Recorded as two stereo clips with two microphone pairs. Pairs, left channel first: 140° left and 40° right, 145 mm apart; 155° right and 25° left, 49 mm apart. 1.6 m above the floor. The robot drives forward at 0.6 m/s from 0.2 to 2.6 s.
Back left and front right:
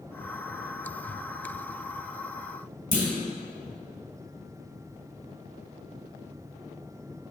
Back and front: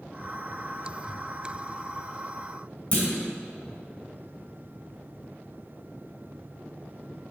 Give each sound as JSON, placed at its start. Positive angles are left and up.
{"t": 2.9, "sound": "a clunk", "azimuth_deg": 145, "distance_m": 2.5}